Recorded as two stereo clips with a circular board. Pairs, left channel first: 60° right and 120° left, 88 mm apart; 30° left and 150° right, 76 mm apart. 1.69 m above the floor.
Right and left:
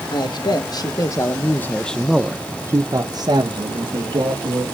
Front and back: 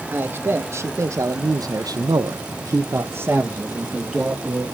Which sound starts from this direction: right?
A man speaking, at 0.1 s.